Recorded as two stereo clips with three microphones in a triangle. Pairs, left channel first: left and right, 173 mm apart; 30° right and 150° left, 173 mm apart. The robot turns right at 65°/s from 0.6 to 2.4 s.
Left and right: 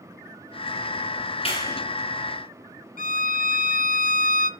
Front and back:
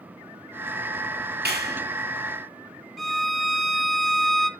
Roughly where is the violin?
Ahead left.